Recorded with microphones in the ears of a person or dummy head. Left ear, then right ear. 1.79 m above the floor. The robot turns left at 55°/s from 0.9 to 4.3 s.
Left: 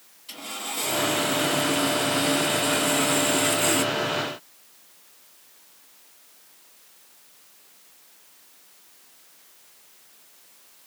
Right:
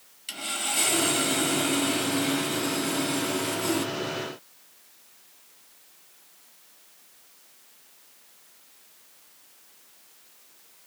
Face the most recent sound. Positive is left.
turn(degrees=40)